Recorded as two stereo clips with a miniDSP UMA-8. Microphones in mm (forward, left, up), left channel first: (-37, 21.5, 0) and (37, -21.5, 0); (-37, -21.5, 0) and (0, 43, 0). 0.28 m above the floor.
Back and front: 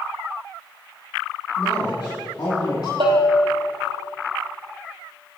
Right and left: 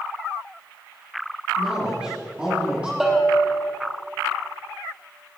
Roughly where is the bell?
Ahead right.